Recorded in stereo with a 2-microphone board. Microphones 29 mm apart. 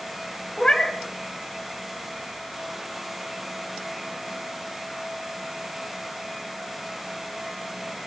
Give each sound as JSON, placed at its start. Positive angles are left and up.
{"t": 0.6, "sound": "a cat meowing", "side_deg": 30, "distance_m": 2.0}